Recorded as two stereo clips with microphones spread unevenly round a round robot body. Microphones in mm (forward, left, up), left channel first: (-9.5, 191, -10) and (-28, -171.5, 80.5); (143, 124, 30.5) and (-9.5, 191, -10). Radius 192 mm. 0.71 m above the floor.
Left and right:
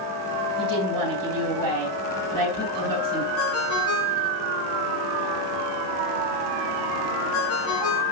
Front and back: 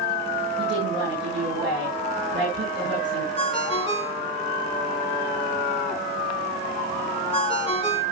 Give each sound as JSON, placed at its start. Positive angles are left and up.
{"t": 0.6, "sound": "a woman speaking", "azimuth_deg": -130, "distance_m": 9.5}
{"t": 3.4, "sound": "a ringtone", "azimuth_deg": 30, "distance_m": 3.0}